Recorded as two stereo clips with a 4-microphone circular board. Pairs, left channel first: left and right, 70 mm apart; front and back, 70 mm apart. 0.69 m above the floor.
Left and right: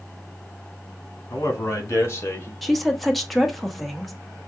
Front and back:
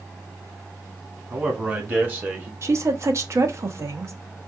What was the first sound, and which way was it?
A man speaking, 120° left.